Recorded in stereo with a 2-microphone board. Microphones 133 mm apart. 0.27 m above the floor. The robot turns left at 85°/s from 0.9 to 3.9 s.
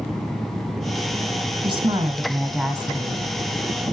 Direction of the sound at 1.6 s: 100° right.